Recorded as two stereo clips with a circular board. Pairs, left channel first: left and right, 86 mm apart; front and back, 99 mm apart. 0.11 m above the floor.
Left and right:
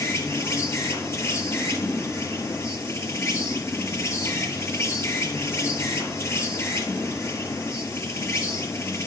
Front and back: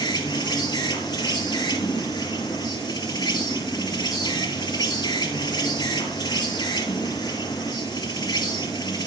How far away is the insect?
About 2.5 m.